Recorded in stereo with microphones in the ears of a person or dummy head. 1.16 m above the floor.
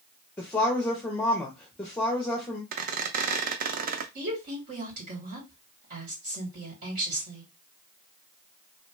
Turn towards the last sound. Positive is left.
turn(degrees=-45)  # may be behind; listen again after turning